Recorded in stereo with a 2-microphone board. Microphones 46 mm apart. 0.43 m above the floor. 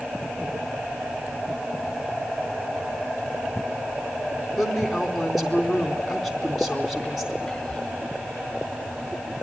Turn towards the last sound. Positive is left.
turn(degrees=15)  # may be behind; listen again after turning